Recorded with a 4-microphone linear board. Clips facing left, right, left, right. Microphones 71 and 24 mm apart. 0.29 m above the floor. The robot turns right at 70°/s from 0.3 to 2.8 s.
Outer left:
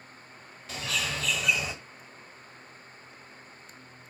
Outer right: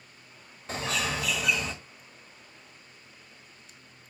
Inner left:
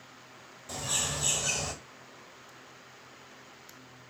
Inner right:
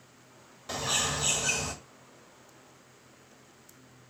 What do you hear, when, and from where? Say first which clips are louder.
0.7 s a bird: outer right 3 dB, inner right 3 dB; 55° right, 1.1 m; by 1.7 s 15° left, 1.1 m